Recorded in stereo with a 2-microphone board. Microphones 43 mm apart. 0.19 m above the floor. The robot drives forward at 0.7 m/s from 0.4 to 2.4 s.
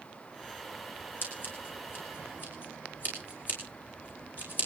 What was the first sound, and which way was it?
Scissors, 45° left (ahead or behind).